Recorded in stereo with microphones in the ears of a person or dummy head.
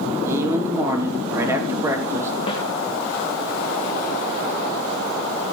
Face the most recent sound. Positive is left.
turn(degrees=30)  # may be behind; listen again after turning